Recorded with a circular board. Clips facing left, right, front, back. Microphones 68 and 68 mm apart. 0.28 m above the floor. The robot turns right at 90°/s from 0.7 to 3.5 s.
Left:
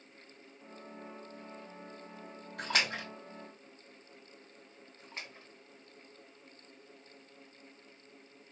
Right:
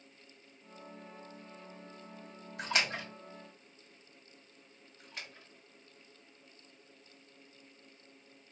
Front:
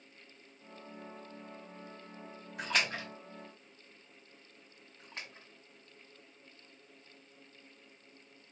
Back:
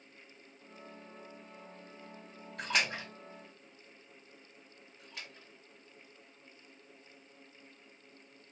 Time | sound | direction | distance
2.6 | a splash | 80° left | 2.5 m
5.0 | a splash | 45° left | 1.6 m